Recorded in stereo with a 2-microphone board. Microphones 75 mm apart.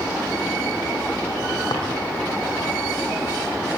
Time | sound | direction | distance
1.7 | a drawer | 70° left (ahead or behind) | 4.5 m